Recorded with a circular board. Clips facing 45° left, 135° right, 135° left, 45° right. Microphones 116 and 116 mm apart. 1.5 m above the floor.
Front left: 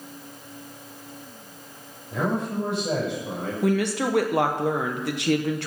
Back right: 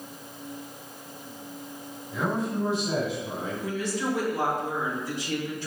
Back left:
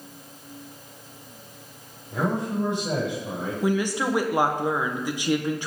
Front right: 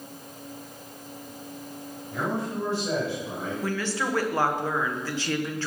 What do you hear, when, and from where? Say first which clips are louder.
2.1 s a man speaking: front left 2 dB, back left 3 dB; 70° left, 7 m; by 3.5 s 60° left, 7.5 m
3.6 s a woman speaking: front left 8 dB, back left 6 dB; 60° left, 1.4 m